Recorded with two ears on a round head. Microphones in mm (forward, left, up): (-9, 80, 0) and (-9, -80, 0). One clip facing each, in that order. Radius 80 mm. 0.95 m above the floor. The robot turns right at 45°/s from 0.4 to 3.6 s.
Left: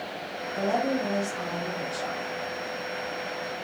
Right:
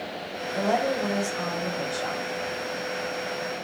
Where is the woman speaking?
95° right, 4.5 m; by 2.3 s 20° right, 4.5 m.